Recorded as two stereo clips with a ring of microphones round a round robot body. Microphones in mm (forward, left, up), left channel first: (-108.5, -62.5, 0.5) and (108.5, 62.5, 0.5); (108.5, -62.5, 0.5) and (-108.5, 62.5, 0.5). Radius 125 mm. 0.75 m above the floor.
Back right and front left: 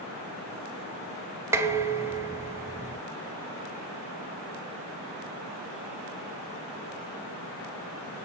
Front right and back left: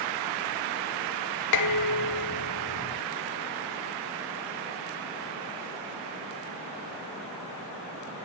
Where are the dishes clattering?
50° right, 1.7 m.